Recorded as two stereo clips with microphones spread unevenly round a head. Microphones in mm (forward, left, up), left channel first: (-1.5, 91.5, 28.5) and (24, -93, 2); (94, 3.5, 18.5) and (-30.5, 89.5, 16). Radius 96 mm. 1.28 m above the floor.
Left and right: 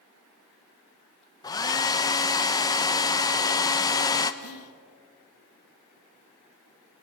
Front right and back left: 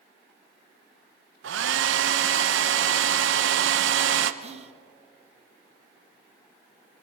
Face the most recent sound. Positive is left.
turn(degrees=95)